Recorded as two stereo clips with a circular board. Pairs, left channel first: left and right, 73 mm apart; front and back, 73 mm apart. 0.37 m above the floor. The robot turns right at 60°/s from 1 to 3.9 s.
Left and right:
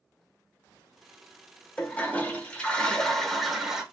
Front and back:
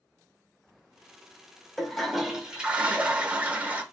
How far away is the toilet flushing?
About 0.6 m.